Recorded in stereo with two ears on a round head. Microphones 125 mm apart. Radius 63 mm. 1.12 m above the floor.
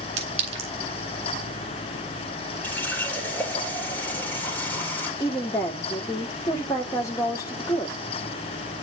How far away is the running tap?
About 3 m.